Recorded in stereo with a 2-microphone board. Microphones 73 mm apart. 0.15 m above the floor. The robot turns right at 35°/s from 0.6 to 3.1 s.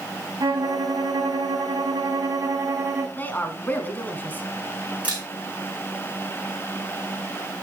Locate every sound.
0.4 s a violin: 115° right, 5.5 m; by 3.1 s 30° right, 5.5 m
3.2 s a woman speaking: 25° left (ahead or behind), 1.5 m
5.0 s a camera shutter: 15° right (ahead or behind), 8.5 m